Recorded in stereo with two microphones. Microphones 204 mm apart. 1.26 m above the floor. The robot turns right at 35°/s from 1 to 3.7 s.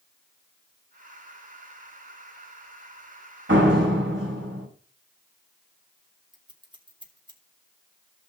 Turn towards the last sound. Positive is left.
turn(degrees=-25)  # may be behind; listen again after turning